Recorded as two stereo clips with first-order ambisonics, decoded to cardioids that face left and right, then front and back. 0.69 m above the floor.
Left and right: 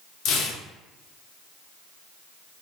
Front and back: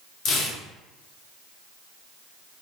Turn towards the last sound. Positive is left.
turn(degrees=45)